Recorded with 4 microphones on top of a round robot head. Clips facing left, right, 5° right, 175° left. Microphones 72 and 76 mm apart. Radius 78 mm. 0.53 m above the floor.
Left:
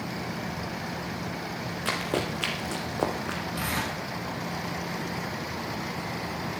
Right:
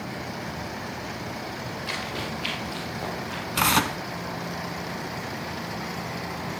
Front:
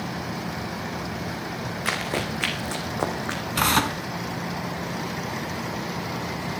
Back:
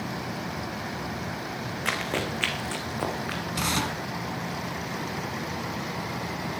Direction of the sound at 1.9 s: 85° left.